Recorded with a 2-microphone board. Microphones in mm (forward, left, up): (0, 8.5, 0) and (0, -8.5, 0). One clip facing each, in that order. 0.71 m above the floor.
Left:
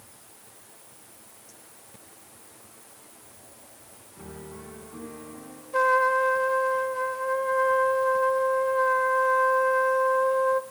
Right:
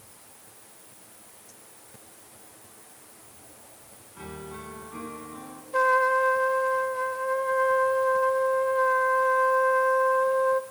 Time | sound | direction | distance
4.2 | a piano | 70° right (ahead or behind) | 4.5 m
5.7 | a trumpet | 10° left (ahead or behind) | 0.8 m